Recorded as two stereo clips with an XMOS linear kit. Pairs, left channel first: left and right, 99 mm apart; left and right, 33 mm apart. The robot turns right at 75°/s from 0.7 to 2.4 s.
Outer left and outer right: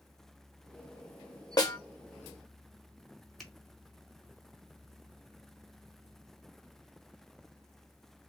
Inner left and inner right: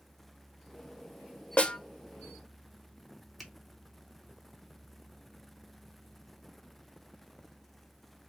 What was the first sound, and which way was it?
A snare drum, 40° left (ahead or behind).